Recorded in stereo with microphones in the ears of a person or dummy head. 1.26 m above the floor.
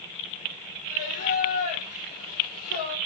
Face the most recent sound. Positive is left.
turn(degrees=45)  # may be behind; listen again after turning